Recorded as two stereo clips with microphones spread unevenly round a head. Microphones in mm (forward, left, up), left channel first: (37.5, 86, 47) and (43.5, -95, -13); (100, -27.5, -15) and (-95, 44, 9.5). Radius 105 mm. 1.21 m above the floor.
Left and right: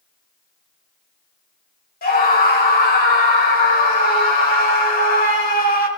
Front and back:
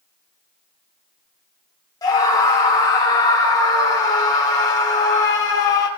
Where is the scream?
55° left, 4.5 m.